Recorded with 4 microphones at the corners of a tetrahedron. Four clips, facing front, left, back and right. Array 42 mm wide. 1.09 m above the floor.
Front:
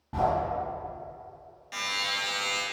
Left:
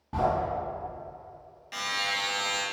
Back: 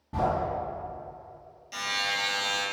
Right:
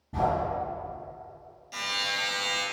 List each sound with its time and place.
0.1 s a sliding door: 65° left, 1.5 m
1.7 s a buzzer: 50° left, 1.0 m